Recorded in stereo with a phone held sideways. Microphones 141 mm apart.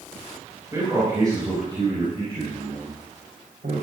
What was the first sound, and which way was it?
A man speaking, 20° right (ahead or behind).